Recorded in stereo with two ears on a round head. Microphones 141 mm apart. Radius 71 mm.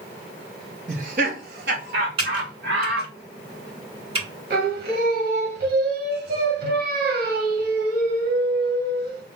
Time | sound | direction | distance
0.9 | laughter | 50° right (ahead or behind) | 0.8 m
2.2 | typing on a keyboard | 35° right (ahead or behind) | 2.5 m
4.5 | singing | 75° right (ahead or behind) | 1.2 m